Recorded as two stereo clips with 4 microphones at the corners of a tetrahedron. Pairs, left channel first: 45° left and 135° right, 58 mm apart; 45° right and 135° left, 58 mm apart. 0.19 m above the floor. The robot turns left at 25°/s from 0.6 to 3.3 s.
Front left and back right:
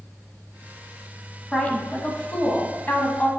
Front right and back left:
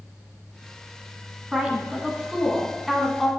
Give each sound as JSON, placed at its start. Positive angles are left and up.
{"t": 1.5, "sound": "a woman speaking", "azimuth_deg": 85, "distance_m": 1.1}